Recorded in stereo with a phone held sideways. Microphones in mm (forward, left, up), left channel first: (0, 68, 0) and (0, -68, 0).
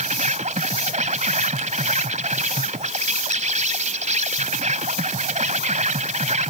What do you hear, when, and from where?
0.0 s an insect: 60° right (ahead or behind)